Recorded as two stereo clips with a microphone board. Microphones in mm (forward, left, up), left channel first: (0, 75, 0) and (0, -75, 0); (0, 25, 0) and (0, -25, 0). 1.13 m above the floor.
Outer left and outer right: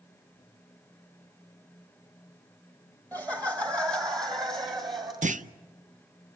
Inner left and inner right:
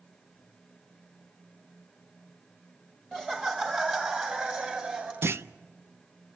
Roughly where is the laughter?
Right.